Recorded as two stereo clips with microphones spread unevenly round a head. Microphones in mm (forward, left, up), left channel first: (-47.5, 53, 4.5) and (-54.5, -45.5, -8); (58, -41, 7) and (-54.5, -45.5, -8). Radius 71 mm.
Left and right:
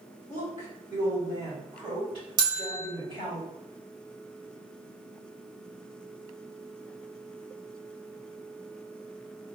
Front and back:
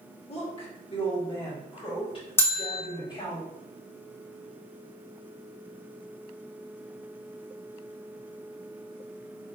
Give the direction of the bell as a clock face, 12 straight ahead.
2 o'clock.